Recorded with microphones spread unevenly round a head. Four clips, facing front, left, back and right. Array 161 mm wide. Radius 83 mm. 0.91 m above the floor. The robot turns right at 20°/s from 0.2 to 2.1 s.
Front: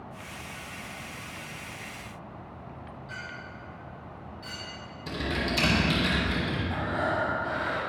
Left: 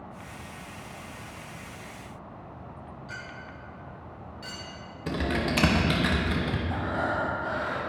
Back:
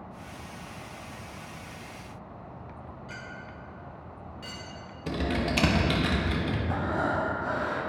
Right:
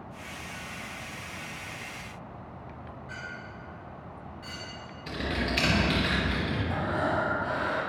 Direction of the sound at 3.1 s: 140° left.